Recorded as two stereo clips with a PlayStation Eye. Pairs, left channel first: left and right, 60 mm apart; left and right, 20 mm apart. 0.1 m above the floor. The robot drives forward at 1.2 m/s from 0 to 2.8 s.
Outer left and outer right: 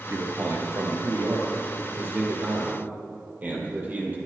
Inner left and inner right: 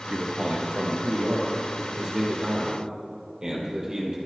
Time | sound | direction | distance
0.1 | a man speaking | 45° right (ahead or behind) | 2.5 m